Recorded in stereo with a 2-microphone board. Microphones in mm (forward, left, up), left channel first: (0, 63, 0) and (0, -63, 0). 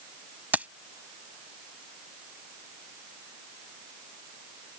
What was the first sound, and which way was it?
Keys jangling, 15° right (ahead or behind).